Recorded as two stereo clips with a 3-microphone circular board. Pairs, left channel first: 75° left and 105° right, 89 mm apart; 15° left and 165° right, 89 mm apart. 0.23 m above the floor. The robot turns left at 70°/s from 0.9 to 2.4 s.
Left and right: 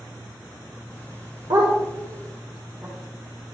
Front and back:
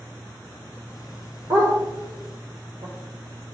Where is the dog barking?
115° right, 5 m; by 3.5 s straight behind, 5 m.